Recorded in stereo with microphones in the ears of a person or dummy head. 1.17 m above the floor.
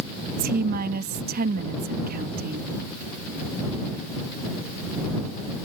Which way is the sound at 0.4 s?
45° right (ahead or behind).